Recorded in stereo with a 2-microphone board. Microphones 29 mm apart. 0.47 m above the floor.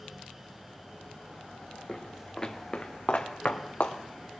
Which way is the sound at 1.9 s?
5° left (ahead or behind).